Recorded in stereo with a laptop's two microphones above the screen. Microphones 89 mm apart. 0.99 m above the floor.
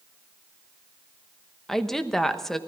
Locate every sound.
1.7 s a woman speaking: 5° left (ahead or behind), 1.0 m